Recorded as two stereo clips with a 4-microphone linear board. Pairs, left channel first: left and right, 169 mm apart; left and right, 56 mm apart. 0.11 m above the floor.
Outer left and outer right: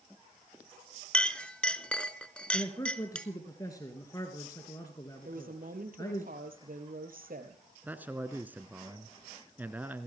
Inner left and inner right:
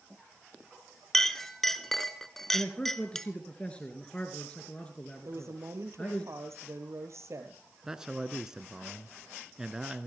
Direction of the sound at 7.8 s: 10° right (ahead or behind).